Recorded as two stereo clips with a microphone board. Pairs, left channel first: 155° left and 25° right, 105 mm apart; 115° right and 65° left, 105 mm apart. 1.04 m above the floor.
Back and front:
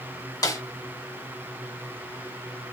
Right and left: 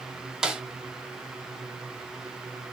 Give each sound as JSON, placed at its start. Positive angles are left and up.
{"t": 0.4, "sound": "a snare drum", "azimuth_deg": 145, "distance_m": 0.9}